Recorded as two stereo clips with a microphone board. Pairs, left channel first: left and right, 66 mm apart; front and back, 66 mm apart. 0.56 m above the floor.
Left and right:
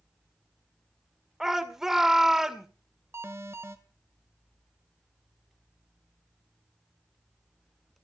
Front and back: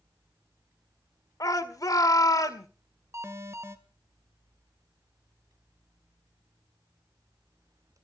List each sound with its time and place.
1.4 s a shout: 5° right, 1.9 m
3.1 s an alarm: 135° right, 1.8 m